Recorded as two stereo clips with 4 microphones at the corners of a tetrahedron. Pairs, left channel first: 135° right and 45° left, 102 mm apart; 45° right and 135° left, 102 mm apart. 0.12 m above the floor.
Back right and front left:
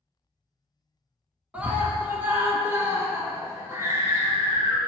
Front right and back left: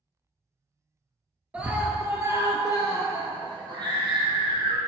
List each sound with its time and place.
1.5 s a scream: 90° left, 1.1 m; by 4.8 s 105° left, 2.5 m